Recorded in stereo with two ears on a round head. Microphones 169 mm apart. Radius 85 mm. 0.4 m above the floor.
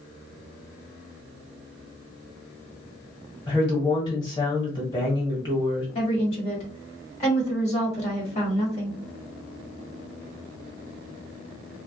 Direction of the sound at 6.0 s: 35° left (ahead or behind).